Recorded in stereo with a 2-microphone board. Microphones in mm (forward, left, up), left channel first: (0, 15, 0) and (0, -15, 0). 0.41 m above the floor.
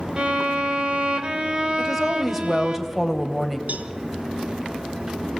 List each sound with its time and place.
0.2 s a violin: 35° right (ahead or behind), 1.5 m
1.8 s a woman speaking: 5° right (ahead or behind), 2.5 m
3.7 s a cowbell: 60° right (ahead or behind), 1.1 m